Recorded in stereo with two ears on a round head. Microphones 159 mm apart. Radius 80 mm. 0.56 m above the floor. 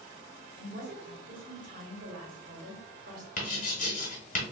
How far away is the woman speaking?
About 1.4 m.